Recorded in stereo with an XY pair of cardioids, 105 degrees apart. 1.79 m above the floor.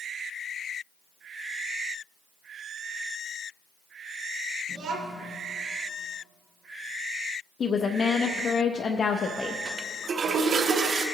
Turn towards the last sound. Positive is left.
turn(degrees=-55)